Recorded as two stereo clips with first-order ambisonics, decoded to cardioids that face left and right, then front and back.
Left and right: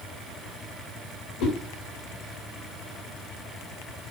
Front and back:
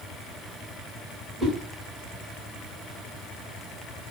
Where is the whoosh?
100° left, 3 m.